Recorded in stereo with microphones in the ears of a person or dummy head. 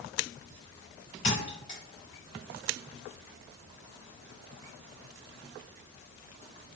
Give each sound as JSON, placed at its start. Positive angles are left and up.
{"t": 1.2, "sound": "a thud", "side_deg": 35, "distance_m": 2.0}